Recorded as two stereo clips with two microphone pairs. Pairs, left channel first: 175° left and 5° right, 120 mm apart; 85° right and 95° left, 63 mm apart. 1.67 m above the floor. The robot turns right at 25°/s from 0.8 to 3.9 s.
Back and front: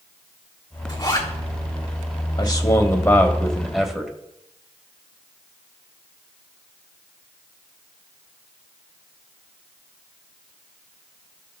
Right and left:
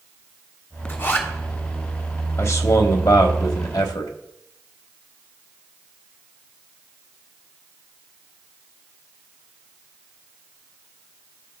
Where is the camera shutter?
No camera shutter in this recording.